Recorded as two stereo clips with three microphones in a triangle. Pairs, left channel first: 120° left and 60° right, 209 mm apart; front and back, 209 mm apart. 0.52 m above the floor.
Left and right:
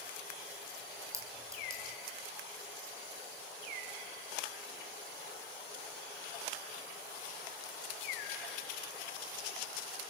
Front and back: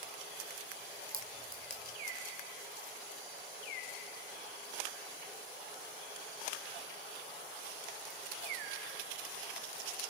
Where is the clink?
135° right, 3.5 m.